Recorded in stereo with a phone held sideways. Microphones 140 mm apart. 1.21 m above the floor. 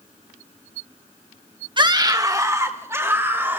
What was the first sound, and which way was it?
A scream, 35° right (ahead or behind).